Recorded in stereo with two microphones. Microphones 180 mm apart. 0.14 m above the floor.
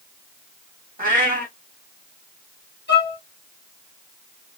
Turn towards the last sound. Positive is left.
turn(degrees=70)  # may be behind; listen again after turning